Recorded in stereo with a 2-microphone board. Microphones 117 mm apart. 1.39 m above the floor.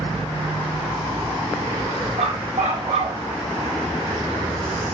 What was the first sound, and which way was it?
A dog barking, 75° right (ahead or behind).